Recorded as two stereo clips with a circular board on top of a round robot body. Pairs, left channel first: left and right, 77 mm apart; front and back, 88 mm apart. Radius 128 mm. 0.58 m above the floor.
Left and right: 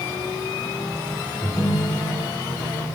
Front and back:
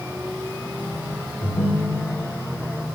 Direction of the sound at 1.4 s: 10° right.